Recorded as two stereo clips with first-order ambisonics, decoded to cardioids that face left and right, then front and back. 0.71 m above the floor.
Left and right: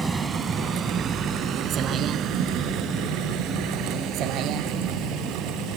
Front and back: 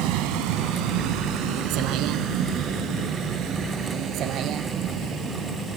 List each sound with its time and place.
0.0 s a vehicle: 170° right; by 5.8 s 130° right